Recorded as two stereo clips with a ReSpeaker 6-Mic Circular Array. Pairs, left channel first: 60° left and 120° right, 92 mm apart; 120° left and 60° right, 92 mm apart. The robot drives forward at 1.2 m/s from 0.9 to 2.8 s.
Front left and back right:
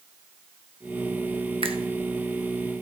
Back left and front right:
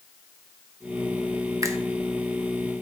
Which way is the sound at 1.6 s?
110° right.